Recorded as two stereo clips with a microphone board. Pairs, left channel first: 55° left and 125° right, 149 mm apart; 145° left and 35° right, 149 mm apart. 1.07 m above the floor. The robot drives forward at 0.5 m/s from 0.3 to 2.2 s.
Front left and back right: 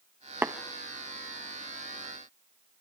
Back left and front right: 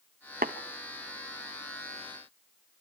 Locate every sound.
0.4 s tapping: 50° right, 0.8 m